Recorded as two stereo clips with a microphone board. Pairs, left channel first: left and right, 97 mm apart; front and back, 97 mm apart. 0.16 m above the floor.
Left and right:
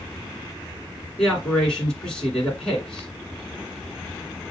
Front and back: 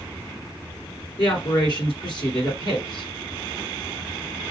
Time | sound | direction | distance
1.2 | a man speaking | 10° left | 1.9 m